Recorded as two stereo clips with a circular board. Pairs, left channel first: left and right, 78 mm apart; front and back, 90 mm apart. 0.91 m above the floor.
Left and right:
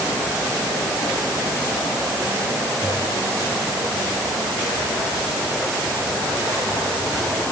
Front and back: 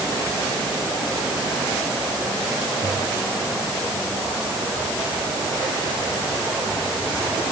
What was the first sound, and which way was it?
Only background noise.